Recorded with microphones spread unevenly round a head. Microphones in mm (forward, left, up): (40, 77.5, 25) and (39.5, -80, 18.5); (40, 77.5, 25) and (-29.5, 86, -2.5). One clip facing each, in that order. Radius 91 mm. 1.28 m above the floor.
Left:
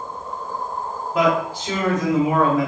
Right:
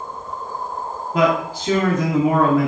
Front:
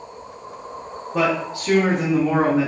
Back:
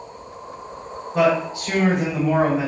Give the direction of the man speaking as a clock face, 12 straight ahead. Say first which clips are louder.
Right 1 dB, back 3 dB; 2 o'clock.